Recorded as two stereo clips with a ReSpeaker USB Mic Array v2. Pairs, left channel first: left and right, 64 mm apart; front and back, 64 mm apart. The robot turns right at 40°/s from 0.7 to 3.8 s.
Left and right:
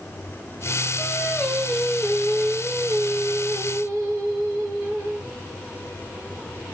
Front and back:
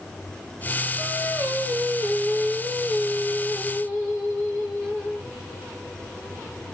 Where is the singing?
130° left, 3 m; by 5.3 s 120° right, 3 m.